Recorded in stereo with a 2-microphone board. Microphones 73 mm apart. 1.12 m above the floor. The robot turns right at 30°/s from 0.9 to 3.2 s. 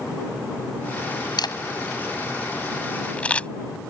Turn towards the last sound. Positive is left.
turn(degrees=15)  # may be behind; listen again after turning